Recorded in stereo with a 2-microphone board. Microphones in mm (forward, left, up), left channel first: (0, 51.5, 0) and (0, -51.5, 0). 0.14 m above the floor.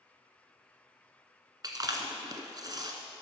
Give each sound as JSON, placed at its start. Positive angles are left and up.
{"t": 1.6, "sound": "chewing", "side_deg": -40, "distance_m": 1.2}